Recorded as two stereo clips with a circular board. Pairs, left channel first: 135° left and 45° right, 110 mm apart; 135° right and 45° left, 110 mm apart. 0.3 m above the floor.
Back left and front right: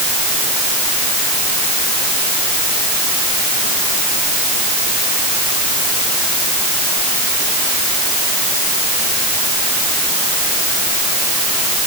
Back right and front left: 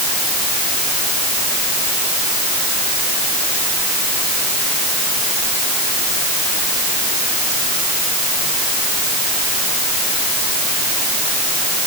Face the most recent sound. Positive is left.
No sound to turn to.